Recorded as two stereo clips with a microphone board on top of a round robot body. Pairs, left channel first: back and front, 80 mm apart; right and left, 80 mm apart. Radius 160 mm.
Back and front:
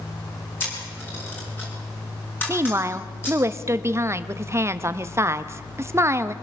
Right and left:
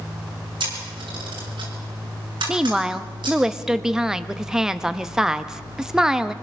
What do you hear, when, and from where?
0.6 s a camera shutter: 115° left, 6.5 m
2.5 s a woman speaking: 10° left, 1.1 m